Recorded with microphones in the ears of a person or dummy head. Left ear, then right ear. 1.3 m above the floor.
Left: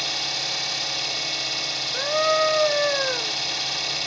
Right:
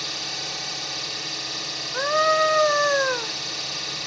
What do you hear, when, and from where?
0.0 s an engine running: 30° left (ahead or behind), 3 m
1.9 s a scream: 25° right (ahead or behind), 0.5 m